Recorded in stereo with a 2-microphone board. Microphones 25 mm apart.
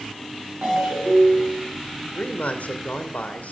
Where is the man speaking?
80° left, 2.5 m.